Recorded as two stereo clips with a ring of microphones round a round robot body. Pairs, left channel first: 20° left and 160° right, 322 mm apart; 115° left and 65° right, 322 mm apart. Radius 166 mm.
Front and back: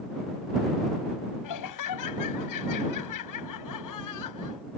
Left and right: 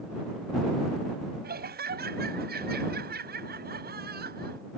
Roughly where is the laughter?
Ahead.